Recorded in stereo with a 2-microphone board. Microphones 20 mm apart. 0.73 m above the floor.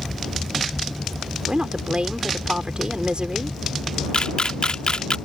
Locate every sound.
1.5 s a woman speaking: 50° right (ahead or behind)
4.1 s a camera shutter: 50° left (ahead or behind)